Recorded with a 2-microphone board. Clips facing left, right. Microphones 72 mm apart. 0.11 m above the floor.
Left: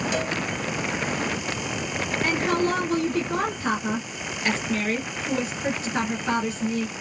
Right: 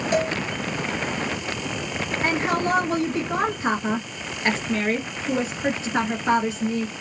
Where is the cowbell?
40° right (ahead or behind), 2.5 m.